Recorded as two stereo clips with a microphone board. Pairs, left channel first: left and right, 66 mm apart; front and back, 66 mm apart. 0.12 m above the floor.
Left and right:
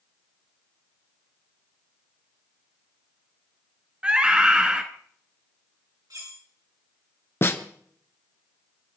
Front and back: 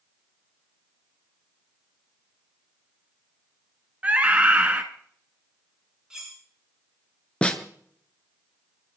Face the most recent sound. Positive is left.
turn(degrees=65)